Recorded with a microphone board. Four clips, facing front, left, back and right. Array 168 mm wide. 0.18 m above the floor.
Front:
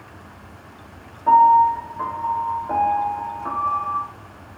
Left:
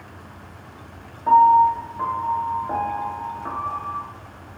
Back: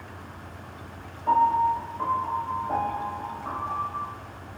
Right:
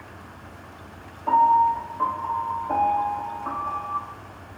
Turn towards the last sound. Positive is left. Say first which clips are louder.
# left 4 dB, front 8 dB
turn(degrees=45)